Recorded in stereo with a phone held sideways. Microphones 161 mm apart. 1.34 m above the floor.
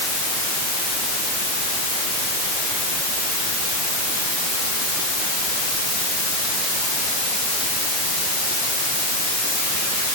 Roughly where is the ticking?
No ticking in this recording.